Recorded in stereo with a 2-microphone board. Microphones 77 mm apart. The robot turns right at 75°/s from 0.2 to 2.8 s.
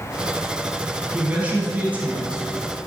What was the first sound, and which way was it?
A man speaking, 20° right (ahead or behind).